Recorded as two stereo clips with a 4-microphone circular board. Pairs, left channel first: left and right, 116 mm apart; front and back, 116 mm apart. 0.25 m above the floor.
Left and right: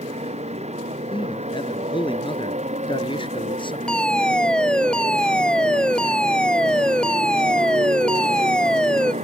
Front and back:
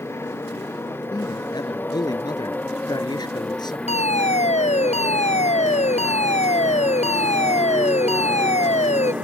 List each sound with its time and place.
0.0 s a motorcycle: 70° right; by 9.2 s 100° right
1.1 s a man speaking: 50° left
3.9 s a fire alarm: 10° left